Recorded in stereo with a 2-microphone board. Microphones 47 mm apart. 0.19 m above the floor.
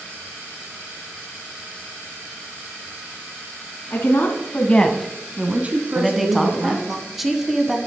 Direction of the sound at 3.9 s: 55° left (ahead or behind).